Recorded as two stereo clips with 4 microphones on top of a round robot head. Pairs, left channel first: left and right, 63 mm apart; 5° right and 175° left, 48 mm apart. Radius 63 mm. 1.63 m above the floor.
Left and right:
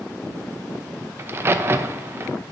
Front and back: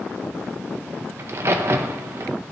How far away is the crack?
About 0.6 m.